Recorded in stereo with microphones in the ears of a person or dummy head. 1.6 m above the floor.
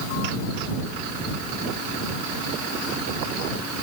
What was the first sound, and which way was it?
Only background noise.